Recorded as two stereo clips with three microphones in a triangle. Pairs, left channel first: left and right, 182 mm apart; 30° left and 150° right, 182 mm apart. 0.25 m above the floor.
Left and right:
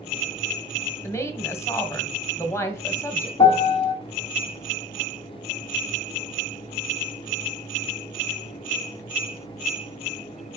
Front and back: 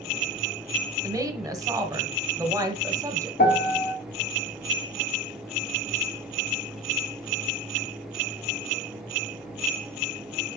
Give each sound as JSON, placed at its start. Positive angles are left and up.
{"t": 1.0, "sound": "a woman speaking", "azimuth_deg": 155, "distance_m": 1.3}
{"t": 3.4, "sound": "a piano", "azimuth_deg": 35, "distance_m": 0.8}